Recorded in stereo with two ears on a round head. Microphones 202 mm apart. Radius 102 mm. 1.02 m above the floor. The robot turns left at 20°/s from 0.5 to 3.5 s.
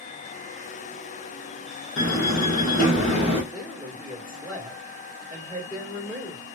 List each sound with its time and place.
2.0 s a door slam: 50° left (ahead or behind), 1.1 m; by 3.4 s 25° left (ahead or behind), 1.1 m
3.5 s a woman speaking: 5° left (ahead or behind), 1.6 m